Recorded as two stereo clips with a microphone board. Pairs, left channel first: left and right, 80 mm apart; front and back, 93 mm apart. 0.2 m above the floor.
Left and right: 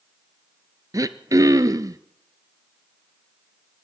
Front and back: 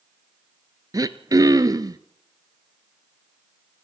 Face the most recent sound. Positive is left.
turn(degrees=-130)